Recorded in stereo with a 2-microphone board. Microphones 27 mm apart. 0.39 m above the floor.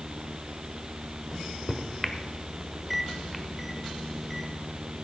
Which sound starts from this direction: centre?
A microwave, at 1.3 s.